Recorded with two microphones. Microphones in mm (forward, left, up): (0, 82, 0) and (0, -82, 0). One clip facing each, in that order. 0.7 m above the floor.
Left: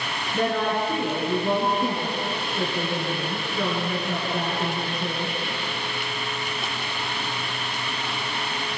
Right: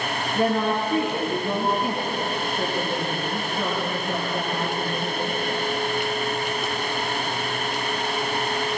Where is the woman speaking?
75° left (ahead or behind), 10 m.